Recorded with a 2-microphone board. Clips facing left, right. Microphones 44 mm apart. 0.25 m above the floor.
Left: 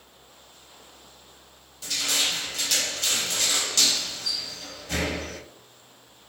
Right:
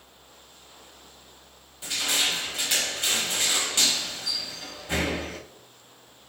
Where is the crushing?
25° right (ahead or behind), 0.6 m.